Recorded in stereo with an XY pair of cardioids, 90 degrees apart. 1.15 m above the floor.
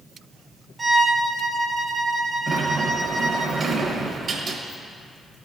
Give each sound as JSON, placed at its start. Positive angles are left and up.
{"t": 0.8, "sound": "a violin", "azimuth_deg": -40, "distance_m": 0.8}
{"t": 2.5, "sound": "a sliding door", "azimuth_deg": -55, "distance_m": 1.0}